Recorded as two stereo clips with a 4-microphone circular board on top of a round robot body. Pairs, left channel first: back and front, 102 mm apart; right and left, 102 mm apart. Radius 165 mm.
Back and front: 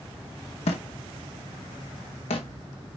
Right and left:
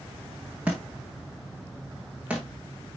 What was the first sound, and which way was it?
A thud, 165° left.